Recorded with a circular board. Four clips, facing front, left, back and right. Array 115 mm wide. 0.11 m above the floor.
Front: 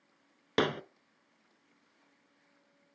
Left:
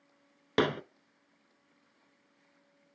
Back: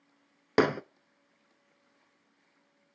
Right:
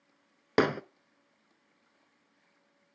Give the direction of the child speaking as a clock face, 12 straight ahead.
No child speaking in this recording.